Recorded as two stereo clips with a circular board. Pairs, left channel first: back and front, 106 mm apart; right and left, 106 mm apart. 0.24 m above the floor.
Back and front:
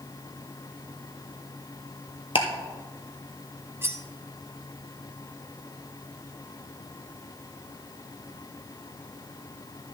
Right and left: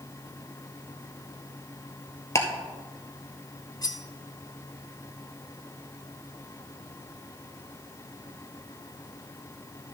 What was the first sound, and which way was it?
Ticking, 150° right.